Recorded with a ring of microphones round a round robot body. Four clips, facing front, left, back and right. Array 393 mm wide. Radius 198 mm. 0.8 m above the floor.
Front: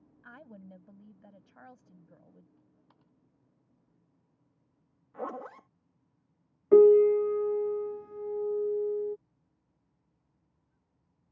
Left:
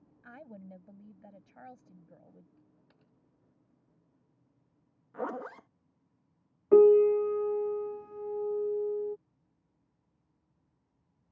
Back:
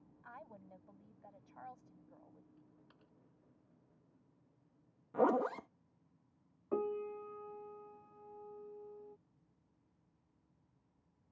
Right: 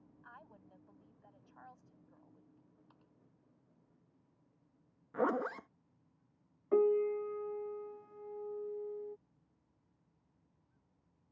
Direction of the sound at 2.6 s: 125° left.